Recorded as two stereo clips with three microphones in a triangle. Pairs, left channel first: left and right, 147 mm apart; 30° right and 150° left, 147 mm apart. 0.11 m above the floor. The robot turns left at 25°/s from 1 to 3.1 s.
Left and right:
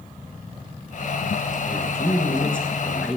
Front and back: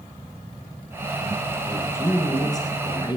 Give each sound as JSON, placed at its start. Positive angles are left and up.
{"t": 1.7, "sound": "a man speaking", "azimuth_deg": 30, "distance_m": 1.5}